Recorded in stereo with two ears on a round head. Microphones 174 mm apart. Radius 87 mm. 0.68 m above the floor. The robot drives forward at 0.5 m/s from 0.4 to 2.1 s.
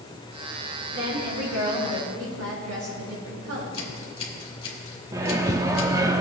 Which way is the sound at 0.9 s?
80° right.